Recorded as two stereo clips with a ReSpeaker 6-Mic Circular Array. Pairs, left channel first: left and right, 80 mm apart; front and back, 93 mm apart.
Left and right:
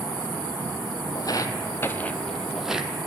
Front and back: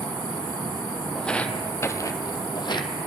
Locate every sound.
1.1 s footsteps: 85° left, 0.9 m; by 2.9 s 15° right, 0.9 m